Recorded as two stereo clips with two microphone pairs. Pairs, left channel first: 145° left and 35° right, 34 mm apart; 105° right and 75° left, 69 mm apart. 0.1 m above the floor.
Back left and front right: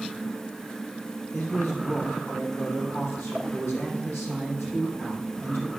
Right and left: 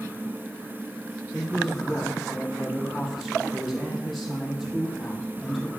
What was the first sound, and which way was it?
A man speaking, 165° left.